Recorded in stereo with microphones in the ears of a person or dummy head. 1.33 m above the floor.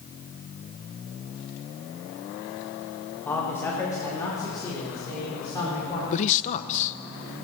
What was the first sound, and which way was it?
A man speaking, 5° left (ahead or behind).